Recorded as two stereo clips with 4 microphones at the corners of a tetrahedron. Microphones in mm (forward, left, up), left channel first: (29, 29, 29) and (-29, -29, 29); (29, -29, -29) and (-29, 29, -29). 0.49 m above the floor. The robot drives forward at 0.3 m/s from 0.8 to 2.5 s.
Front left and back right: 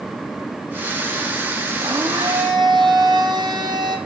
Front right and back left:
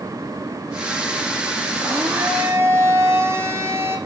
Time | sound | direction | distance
1.8 | a blender | 170° right | 4.5 m